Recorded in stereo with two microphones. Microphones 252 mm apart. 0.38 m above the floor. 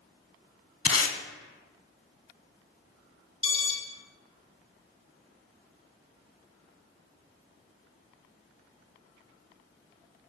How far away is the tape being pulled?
About 0.5 m.